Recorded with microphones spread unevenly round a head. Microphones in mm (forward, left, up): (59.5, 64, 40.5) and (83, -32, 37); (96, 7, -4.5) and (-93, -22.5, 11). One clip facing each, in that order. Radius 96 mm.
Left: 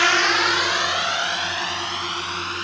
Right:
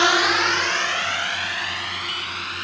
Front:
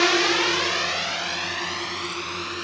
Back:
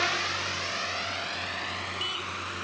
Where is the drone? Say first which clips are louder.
Right 1 dB, front 13 dB; 10° right; by 2.6 s 45° left.